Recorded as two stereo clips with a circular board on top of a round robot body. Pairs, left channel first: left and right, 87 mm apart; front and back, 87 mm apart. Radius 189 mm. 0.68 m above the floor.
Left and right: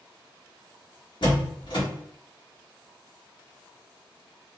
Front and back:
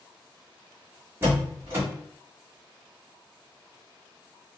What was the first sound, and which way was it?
A door slam, 120° left.